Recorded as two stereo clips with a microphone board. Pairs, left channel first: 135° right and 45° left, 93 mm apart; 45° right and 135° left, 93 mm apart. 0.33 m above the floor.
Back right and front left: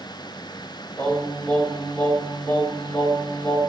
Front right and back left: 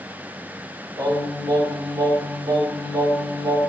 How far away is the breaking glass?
No breaking glass in this recording.